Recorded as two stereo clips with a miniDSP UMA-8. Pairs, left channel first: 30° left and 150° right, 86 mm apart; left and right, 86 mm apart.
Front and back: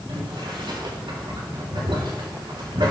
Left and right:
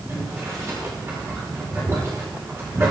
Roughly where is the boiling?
Behind right.